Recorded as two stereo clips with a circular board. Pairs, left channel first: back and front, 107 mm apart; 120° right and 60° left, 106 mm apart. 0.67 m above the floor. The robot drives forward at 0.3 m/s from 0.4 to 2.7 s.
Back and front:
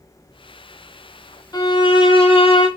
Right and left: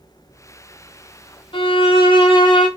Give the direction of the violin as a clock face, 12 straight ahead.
5 o'clock.